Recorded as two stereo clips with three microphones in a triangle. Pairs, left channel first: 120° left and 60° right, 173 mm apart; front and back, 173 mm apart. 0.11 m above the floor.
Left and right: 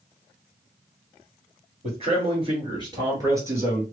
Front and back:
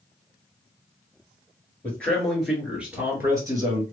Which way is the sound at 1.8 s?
75° right.